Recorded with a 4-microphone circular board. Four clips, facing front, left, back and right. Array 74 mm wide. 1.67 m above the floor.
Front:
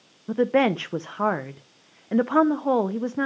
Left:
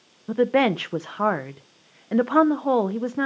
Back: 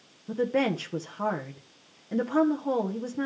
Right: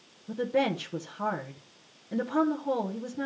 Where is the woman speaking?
55° left, 0.6 m.